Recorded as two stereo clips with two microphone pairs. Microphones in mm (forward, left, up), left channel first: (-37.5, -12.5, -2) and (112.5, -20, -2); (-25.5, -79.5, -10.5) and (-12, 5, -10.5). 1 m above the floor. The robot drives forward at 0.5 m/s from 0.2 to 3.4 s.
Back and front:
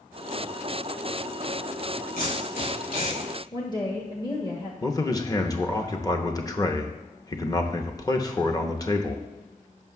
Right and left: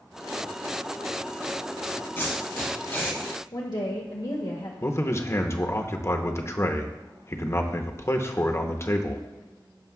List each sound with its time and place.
2.2 s tape being pulled: 160° right, 4 m; by 3.2 s 165° right, 4.5 m
3.5 s a woman speaking: 125° right, 1.1 m
4.8 s a man speaking: 130° right, 0.8 m